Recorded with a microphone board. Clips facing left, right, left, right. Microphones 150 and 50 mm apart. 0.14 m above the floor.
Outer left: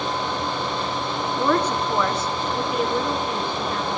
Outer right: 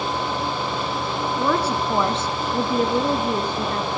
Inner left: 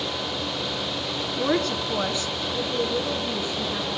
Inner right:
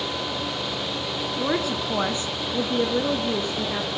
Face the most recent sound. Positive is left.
turn(degrees=-40)  # may be behind; listen again after turning